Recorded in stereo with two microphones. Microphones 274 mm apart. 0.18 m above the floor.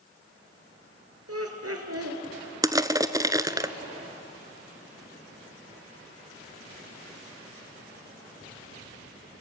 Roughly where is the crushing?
Centre.